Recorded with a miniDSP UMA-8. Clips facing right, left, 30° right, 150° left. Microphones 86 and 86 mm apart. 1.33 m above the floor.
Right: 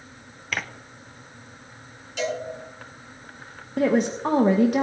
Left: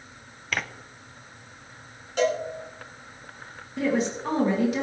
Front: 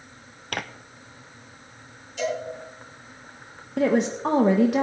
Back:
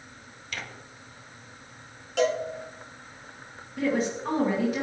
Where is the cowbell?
135° left, 6 m.